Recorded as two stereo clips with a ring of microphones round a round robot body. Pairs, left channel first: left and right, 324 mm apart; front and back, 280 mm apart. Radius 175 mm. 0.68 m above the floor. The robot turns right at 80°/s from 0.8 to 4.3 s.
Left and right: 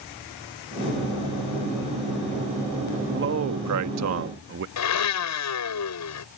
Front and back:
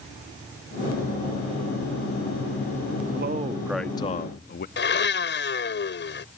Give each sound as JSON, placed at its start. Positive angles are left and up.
{"t": 3.1, "sound": "a man speaking", "azimuth_deg": -140}
{"t": 4.8, "sound": "a blender", "azimuth_deg": 50}